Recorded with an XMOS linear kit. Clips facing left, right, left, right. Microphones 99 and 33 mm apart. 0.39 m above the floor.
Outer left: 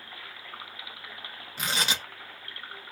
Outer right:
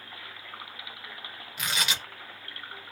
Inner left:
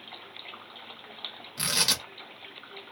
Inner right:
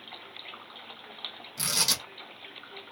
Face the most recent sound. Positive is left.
turn(degrees=35)  # may be behind; listen again after turning